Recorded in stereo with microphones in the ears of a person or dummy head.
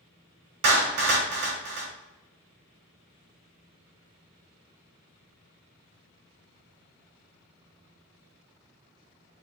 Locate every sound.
0.6 s a clap: 55° right (ahead or behind), 1.5 m